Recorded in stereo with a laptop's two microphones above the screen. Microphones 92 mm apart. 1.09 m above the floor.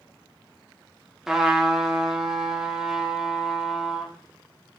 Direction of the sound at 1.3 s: 5° right (ahead or behind).